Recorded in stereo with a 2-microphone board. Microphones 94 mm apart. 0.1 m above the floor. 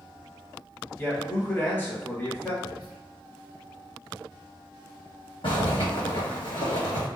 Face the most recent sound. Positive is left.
turn(degrees=65)  # may be behind; listen again after turning